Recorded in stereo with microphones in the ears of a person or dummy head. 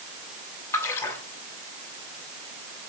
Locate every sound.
0.7 s a splash: 15° left (ahead or behind), 3 m